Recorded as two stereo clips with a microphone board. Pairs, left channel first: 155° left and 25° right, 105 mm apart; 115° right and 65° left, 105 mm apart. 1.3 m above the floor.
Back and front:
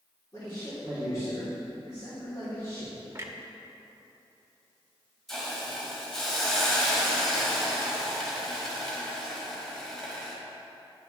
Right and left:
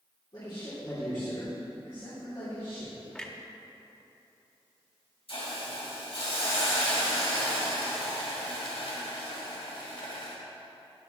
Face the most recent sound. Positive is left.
turn(degrees=-115)